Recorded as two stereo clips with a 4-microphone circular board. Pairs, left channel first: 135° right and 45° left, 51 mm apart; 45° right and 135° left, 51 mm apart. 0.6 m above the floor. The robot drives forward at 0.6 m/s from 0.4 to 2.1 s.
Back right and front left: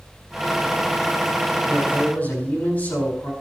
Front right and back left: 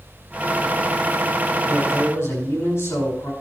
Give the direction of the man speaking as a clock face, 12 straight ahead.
3 o'clock.